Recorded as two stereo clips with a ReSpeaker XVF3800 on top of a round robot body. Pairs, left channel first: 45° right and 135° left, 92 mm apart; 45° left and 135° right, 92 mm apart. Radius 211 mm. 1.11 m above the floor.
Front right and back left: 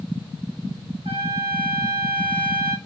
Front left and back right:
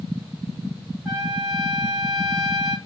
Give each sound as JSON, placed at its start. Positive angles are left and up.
{"t": 1.1, "sound": "a trumpet", "azimuth_deg": 140, "distance_m": 2.0}